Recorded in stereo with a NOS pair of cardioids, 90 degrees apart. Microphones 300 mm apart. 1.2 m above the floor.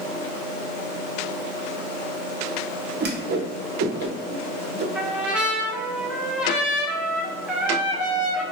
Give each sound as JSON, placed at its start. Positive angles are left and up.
{"t": 3.0, "sound": "a whoosh", "azimuth_deg": -35, "distance_m": 0.5}
{"t": 5.0, "sound": "a trumpet", "azimuth_deg": -5, "distance_m": 0.6}